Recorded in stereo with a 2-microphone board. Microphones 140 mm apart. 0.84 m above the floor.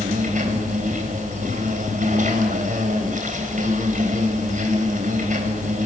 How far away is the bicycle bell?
No bicycle bell in this recording.